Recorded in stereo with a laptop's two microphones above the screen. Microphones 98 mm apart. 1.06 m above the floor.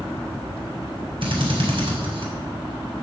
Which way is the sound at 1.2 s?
60° right (ahead or behind).